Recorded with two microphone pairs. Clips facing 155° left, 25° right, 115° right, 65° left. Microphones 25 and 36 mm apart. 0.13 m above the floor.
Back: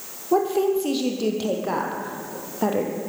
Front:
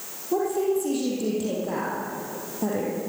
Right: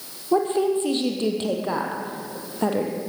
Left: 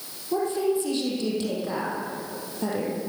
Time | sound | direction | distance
0.3 | a woman speaking | 170° right | 4.5 m